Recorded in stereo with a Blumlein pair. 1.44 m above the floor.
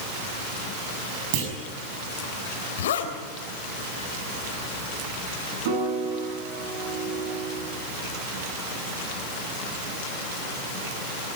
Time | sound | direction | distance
1.3 | a clunk | 45° right | 5.5 m
2.8 | a zipper | 60° left | 3 m
5.7 | a piano | 55° right | 8.5 m